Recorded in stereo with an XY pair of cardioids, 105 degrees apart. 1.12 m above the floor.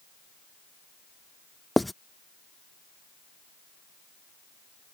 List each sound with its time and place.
1.8 s writing: 5° left